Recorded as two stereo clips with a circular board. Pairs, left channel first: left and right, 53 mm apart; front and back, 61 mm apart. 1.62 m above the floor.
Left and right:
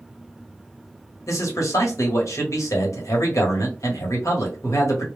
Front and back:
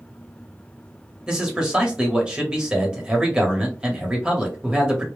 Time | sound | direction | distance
1.3 | a man speaking | 105° left | 1.0 m